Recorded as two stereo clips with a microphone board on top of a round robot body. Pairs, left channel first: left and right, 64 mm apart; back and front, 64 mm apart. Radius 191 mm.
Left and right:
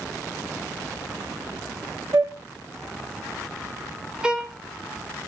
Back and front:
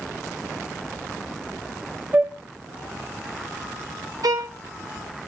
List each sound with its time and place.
2.1 s a flute: 60° right, 0.5 m
4.2 s a violin: 15° right, 1.1 m